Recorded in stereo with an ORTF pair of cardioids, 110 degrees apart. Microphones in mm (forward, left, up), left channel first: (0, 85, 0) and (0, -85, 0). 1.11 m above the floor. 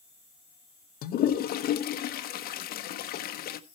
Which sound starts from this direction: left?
A toilet flushing, at 1.0 s.